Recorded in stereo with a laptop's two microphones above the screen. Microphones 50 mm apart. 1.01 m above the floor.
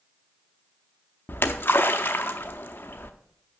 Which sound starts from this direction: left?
A splash, at 1.3 s.